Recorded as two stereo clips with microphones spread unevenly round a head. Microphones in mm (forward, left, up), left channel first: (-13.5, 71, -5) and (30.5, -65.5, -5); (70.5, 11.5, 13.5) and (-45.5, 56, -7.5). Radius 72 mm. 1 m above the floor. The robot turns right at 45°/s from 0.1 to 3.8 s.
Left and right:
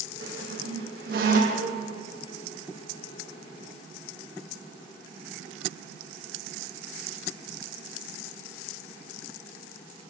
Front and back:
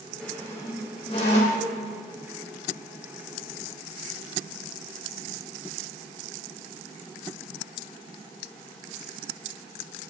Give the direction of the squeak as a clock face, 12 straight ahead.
3 o'clock.